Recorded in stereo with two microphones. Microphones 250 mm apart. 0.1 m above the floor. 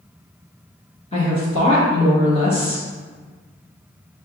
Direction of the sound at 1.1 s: 25° left (ahead or behind).